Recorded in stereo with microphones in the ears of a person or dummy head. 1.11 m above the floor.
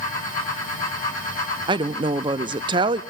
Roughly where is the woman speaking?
Right.